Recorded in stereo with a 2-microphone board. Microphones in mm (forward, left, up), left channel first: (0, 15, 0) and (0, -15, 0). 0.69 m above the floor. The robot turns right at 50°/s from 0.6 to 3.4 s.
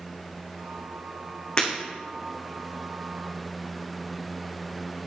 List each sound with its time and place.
1.6 s breaking glass: 30° left (ahead or behind), 4 m; by 1.7 s 35° left (ahead or behind), 4 m